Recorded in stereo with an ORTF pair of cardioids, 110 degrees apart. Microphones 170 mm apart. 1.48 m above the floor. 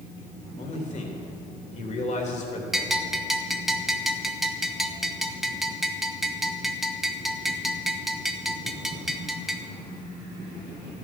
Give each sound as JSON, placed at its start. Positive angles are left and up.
{"t": 0.6, "sound": "a man speaking", "azimuth_deg": 45, "distance_m": 3.0}
{"t": 2.7, "sound": "a bell", "azimuth_deg": 0, "distance_m": 1.0}